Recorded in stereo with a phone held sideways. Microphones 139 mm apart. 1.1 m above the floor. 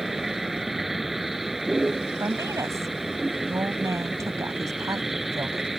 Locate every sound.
0.0 s a vehicle: centre (ahead or behind)
2.2 s a woman speaking: 25° right (ahead or behind)